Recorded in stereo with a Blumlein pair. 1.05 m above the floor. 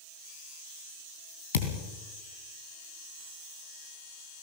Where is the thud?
60° left, 3 m.